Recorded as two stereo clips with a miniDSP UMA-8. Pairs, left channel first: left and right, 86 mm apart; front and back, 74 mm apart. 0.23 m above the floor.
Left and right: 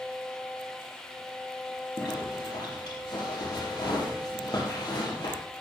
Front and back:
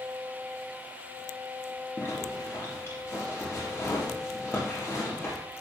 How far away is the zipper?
About 5.5 m.